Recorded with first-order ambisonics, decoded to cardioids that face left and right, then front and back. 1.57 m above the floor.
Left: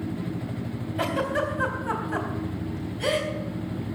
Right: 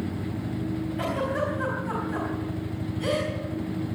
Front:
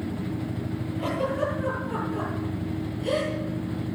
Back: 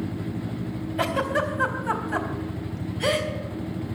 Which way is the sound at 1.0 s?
155° left.